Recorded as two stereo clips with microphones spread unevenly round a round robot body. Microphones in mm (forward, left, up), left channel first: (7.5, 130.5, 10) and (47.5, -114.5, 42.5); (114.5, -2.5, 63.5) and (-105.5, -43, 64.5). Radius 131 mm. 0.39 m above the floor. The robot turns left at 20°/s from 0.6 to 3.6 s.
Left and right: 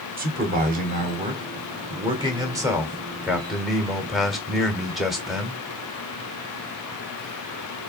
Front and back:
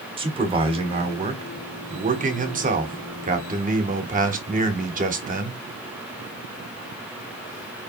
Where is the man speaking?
120° right, 1.5 m; by 5.6 s straight behind, 1.5 m.